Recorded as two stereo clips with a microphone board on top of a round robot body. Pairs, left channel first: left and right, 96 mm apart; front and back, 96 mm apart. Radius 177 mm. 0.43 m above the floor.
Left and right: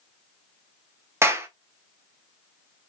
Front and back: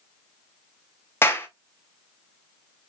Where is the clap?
45° right, 1.0 m.